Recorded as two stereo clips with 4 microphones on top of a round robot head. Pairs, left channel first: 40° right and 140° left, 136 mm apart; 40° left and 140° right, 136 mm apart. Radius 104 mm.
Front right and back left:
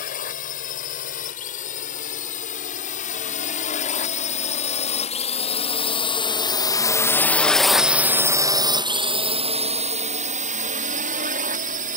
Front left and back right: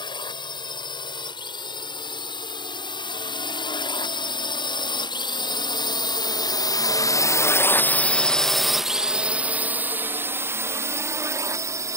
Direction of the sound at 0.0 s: 15° right.